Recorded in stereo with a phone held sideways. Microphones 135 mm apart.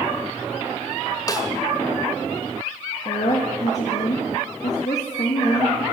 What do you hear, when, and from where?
1.3 s a snare drum: 25° left (ahead or behind), 1.4 m
3.0 s a woman speaking: 60° left (ahead or behind), 1.9 m